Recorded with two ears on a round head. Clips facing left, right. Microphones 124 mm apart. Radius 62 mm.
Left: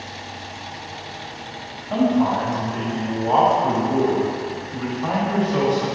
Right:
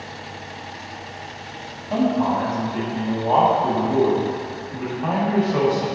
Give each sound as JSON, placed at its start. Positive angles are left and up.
{"t": 1.9, "sound": "a man speaking", "side_deg": -10, "distance_m": 1.7}